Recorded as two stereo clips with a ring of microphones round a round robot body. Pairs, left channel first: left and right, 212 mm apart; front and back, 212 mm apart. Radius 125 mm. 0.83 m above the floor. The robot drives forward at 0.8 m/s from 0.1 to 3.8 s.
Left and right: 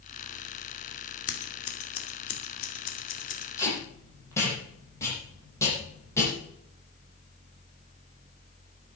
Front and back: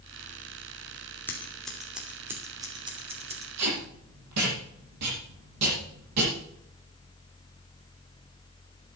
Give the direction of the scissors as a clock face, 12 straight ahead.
9 o'clock.